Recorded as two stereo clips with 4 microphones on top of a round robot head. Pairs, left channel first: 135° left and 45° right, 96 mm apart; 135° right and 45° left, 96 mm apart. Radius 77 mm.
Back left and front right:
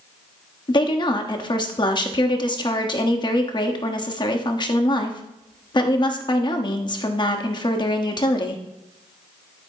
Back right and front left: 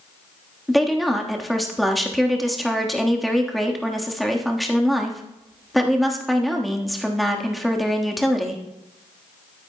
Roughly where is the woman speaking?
Behind left.